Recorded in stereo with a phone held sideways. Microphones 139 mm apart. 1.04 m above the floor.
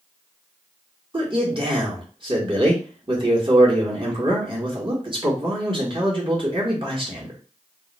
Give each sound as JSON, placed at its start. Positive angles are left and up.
{"t": 1.1, "sound": "a man speaking", "side_deg": -40, "distance_m": 1.2}